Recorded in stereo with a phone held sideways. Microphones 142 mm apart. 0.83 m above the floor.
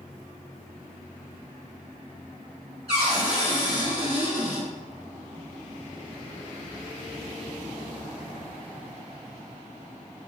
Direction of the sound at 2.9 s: 45° right (ahead or behind).